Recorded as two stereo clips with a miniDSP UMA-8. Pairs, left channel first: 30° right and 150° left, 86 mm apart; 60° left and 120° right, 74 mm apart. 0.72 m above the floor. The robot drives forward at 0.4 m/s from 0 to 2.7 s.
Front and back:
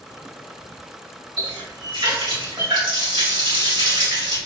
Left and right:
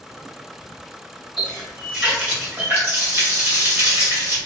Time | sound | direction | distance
1.4 | a running tap | 160° left | 1.8 m